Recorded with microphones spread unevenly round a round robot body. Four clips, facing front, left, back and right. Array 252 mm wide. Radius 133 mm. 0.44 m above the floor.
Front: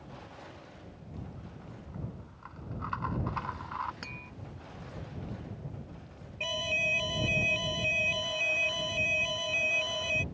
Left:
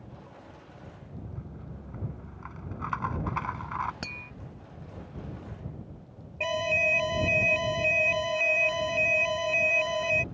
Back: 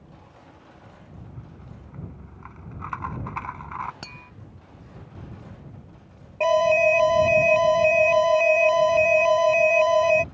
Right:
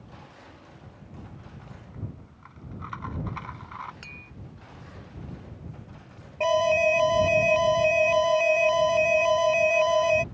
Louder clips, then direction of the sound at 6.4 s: Right 8 dB, back 19 dB; 160° right.